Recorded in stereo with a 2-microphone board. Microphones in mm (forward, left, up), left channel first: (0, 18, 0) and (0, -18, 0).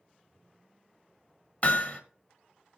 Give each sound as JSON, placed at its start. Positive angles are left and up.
{"t": 1.6, "sound": "hammering", "side_deg": 40, "distance_m": 1.1}